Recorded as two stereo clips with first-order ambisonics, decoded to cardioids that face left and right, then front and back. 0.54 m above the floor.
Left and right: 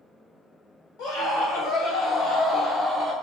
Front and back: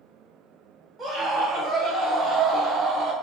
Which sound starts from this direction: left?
A scream, at 1.0 s.